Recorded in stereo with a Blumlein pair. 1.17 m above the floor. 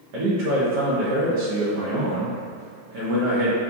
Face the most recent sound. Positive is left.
turn(degrees=-50)